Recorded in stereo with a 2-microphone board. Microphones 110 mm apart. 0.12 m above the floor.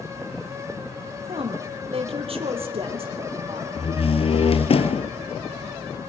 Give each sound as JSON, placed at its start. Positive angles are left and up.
{"t": 1.3, "sound": "a woman speaking", "side_deg": -60, "distance_m": 4.0}
{"t": 3.8, "sound": "a door slam", "side_deg": 60, "distance_m": 1.5}